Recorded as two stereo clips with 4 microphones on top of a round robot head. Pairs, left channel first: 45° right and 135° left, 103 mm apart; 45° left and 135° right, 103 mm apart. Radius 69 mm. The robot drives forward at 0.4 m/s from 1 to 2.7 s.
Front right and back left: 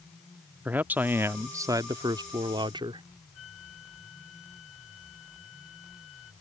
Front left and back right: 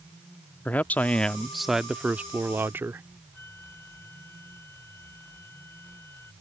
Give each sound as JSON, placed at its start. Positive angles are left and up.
{"t": 0.7, "sound": "a man speaking", "azimuth_deg": 95}
{"t": 3.3, "sound": "a flute", "azimuth_deg": -25}